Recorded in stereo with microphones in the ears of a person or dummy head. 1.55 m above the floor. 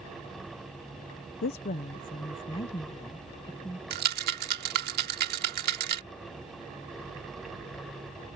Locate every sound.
1.4 s a woman speaking: 50° left (ahead or behind); by 3.8 s 10° left (ahead or behind)
3.9 s a rattle: 50° right (ahead or behind)